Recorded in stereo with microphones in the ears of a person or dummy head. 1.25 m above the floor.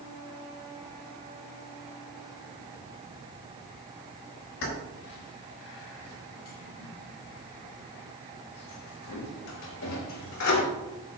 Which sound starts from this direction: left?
Keys jangling, at 4.6 s.